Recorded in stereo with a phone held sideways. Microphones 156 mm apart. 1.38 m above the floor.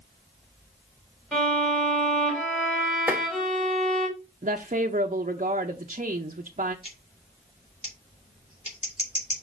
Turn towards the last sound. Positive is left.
turn(degrees=45)  # may be behind; listen again after turning